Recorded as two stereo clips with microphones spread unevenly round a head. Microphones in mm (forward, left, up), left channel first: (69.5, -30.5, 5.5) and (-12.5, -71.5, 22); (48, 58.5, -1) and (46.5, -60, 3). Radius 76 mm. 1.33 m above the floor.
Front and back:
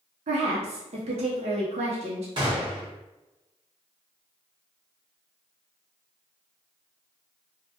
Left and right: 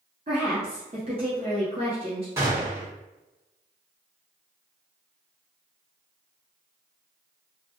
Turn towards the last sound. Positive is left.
turn(degrees=-160)